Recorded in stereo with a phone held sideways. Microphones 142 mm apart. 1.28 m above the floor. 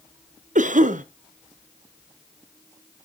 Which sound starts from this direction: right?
A cough, at 0.6 s.